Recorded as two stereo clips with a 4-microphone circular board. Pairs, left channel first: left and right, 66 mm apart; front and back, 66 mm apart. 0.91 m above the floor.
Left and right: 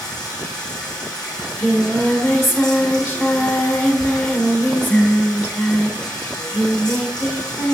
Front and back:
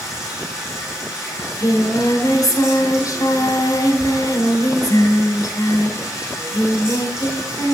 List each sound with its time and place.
0.0 s running water: 100° left, 8 m
1.4 s singing: 30° left, 2.5 m